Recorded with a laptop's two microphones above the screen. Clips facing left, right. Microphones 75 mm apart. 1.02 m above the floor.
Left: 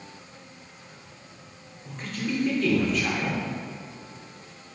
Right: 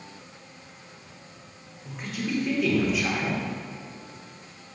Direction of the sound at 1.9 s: 10° right (ahead or behind).